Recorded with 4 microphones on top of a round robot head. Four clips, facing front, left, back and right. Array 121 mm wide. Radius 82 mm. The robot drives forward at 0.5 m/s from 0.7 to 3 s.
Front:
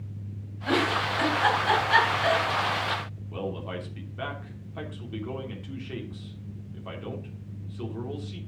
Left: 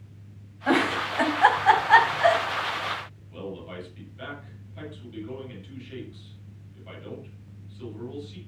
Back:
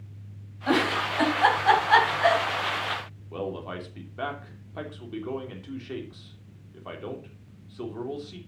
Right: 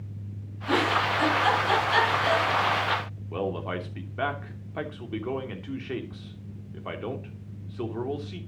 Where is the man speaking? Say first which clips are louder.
Right 7 dB, back 1 dB; 105° right, 3 m.